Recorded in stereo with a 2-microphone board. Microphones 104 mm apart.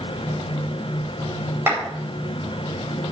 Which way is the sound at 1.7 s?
25° right (ahead or behind).